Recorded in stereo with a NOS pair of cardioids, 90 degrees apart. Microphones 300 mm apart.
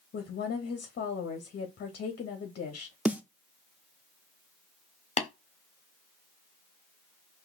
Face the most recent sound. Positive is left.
turn(degrees=25)